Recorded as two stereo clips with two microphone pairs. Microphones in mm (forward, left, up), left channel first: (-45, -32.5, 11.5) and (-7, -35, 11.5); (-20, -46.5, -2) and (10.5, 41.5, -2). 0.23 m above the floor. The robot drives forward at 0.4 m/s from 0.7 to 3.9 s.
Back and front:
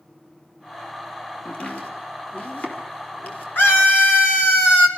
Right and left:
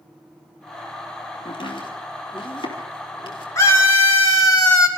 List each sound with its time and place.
1.4 s chopping: 135° right, 3.5 m; by 3.5 s 145° right, 4.5 m
3.5 s a scream: 160° right, 3 m; by 4.9 s 165° right, 3.5 m